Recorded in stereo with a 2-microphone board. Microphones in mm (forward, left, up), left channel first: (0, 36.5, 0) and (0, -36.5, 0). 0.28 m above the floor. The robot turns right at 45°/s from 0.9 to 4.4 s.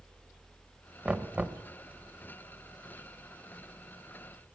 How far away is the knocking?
About 0.6 m.